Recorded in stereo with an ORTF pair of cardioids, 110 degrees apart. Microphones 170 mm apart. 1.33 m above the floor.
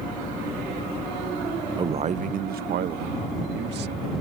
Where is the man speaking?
25° right; by 4.1 s 75° right.